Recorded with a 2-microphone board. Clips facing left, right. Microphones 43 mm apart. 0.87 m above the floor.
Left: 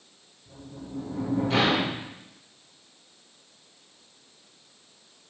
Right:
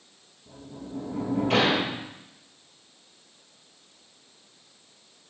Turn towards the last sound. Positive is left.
turn(degrees=-55)  # may be behind; listen again after turning